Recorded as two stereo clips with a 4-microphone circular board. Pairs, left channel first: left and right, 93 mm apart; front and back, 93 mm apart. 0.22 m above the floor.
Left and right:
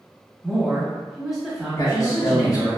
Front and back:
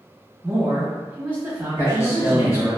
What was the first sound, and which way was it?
A woman speaking, 170° right.